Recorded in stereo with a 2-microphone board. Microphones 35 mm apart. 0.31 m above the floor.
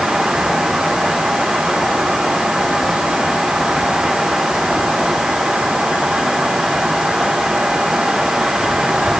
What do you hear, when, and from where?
Only background noise.